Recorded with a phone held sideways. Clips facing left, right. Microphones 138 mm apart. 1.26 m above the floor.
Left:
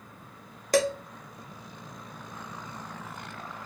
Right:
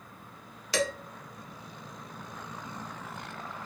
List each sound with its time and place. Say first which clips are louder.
0.7 s dishes clattering: left 6 dB; 45° left (ahead or behind), 0.7 m